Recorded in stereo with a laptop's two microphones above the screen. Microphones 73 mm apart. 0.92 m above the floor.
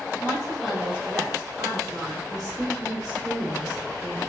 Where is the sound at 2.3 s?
65° right (ahead or behind), 1.2 m.